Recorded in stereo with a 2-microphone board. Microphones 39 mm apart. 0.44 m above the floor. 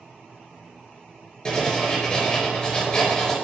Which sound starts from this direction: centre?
Writing, at 1.4 s.